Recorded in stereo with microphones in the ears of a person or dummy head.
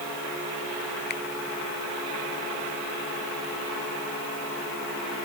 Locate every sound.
1.1 s a finger snap: 50° left (ahead or behind)